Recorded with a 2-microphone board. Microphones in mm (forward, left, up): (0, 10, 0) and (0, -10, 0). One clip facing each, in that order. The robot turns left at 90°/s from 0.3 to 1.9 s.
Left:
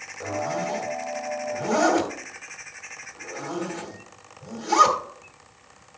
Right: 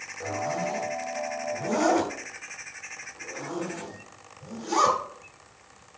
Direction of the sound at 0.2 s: 10° left (ahead or behind).